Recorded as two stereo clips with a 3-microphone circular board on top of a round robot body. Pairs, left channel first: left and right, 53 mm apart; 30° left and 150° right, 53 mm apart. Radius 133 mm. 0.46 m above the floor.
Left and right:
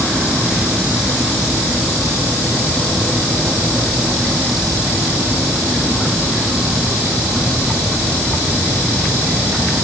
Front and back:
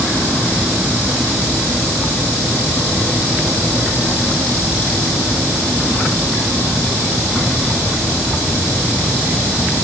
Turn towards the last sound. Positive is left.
No sound to turn to.